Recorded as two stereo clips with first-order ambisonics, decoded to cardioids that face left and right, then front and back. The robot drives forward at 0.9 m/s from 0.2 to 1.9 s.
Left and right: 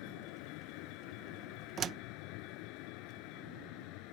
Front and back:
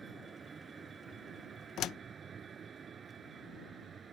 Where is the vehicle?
105° left; by 4.1 s 110° left.